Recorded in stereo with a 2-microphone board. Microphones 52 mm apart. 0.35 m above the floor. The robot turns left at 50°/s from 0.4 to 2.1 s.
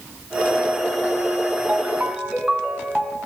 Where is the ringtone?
35° right (ahead or behind), 2.5 m; by 3.2 s 15° right (ahead or behind), 2.5 m.